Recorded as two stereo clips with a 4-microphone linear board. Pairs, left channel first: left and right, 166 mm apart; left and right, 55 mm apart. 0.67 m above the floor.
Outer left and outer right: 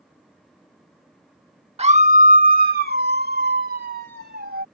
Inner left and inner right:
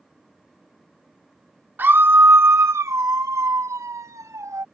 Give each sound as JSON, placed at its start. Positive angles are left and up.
{"t": 1.8, "sound": "a scream", "side_deg": -40}